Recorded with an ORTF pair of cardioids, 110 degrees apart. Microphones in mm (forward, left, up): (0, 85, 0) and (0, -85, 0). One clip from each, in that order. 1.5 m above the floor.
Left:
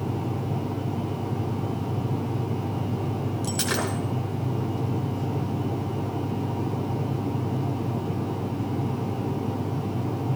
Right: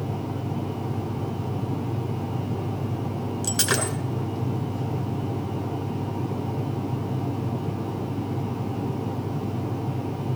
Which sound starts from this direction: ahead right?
Breaking glass, at 3.4 s.